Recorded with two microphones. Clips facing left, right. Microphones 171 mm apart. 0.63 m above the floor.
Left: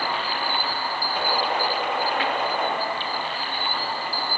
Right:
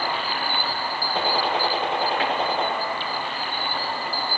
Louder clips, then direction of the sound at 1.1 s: Right 2 dB; 25° right (ahead or behind).